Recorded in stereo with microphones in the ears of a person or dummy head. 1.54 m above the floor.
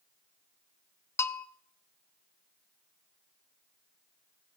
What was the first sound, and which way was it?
A bell, 20° left (ahead or behind).